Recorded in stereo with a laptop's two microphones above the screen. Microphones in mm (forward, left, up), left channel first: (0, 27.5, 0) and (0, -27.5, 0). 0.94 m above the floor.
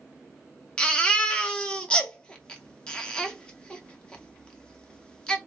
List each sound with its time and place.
0.8 s a baby crying: 15° left (ahead or behind), 0.6 m